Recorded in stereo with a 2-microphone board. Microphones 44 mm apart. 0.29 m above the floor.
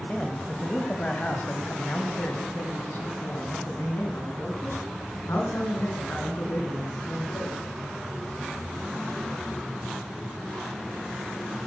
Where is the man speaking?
20° left (ahead or behind), 2 m; by 7.6 s 70° left (ahead or behind), 5 m.